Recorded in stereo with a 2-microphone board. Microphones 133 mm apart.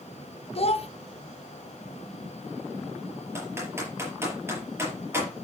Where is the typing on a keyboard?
20° right (ahead or behind), 5.5 m.